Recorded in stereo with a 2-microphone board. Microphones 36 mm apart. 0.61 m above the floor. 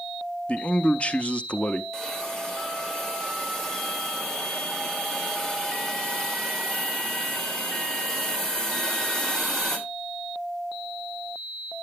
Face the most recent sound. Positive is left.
turn(degrees=15)  # may be behind; listen again after turning